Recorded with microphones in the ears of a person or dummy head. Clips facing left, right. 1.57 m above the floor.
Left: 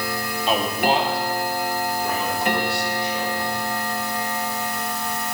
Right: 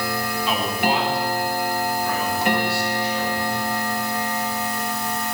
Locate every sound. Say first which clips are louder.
0.5 s a man speaking: left 3 dB; 35° left (ahead or behind), 2.5 m; by 3.6 s 20° left (ahead or behind), 6.5 m